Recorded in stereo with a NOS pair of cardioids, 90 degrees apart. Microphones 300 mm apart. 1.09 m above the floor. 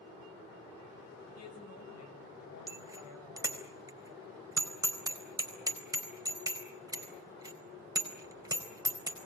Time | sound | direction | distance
1.4 | a woman speaking | 60° left | 7 m
2.7 | a bicycle bell | 10° right | 4 m